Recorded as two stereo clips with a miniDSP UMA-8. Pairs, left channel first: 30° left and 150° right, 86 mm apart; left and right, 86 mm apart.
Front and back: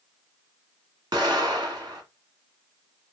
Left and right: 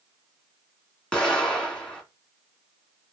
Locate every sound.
1.1 s an explosion: 170° left, 1.4 m